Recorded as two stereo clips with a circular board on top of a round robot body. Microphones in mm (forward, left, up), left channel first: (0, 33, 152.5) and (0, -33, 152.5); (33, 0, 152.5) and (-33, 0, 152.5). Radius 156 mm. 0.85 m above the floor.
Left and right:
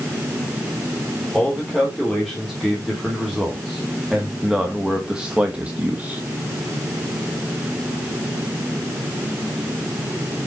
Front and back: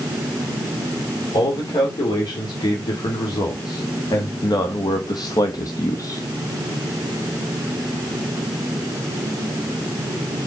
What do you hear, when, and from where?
1.3 s a man speaking: straight ahead, 3.5 m; by 6.2 s 30° right, 1.1 m